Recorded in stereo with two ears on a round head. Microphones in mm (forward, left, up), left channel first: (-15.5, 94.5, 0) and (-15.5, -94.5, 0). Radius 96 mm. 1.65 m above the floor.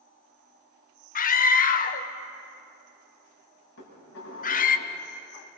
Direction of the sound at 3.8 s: 60° left (ahead or behind).